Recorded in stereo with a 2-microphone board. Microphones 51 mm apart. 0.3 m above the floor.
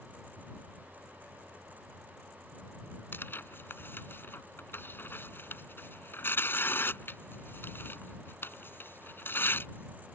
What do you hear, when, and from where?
3.1 s tearing paper: 45° left (ahead or behind)